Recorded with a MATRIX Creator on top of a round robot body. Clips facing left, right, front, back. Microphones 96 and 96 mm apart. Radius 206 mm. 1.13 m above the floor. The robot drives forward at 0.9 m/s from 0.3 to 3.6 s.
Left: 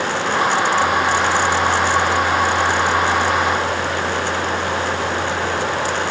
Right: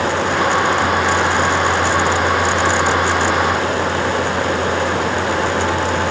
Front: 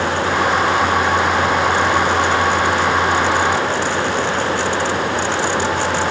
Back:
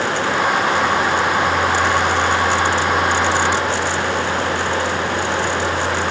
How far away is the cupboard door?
No cupboard door in this recording.